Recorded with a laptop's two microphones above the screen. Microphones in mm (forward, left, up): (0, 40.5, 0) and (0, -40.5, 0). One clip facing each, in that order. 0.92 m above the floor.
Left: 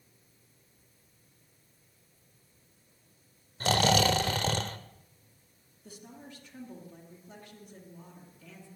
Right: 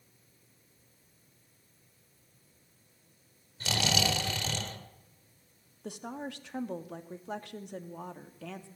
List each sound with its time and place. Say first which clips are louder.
3.6 s snoring: left 6 dB; 50° left (ahead or behind), 1.5 m
5.8 s a woman speaking: right 9 dB; 75° right (ahead or behind), 1.5 m